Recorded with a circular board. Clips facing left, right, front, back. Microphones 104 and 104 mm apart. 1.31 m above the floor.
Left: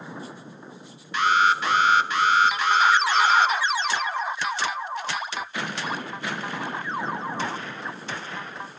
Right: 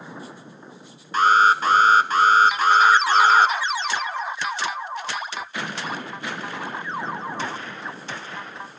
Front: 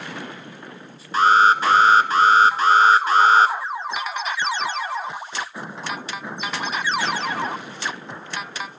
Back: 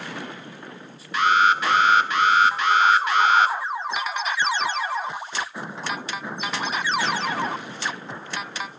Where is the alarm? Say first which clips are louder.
Right 4 dB, front 4 dB; 50° right, 0.7 m.